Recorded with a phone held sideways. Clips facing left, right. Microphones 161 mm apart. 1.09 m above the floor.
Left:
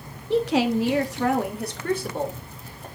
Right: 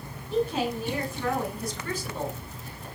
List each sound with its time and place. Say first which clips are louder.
0.3 s a woman speaking: left 6 dB; 70° left (ahead or behind), 1.4 m; by 2.9 s 50° left (ahead or behind), 3.5 m